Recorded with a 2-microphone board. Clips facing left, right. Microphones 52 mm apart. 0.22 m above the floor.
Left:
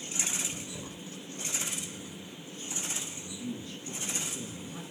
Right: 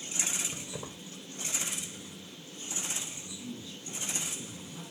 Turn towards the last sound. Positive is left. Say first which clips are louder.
# left 4 dB
turn(degrees=35)  # may be behind; listen again after turning